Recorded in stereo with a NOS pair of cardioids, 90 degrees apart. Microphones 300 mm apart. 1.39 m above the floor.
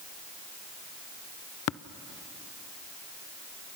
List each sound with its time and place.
1.7 s tapping: 45° left, 0.6 m